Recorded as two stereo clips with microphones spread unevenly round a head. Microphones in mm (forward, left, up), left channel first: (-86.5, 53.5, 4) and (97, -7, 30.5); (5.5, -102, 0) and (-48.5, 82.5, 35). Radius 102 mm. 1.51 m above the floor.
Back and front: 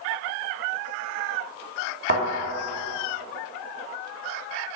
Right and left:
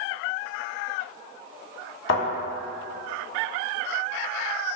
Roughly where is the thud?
Ahead right.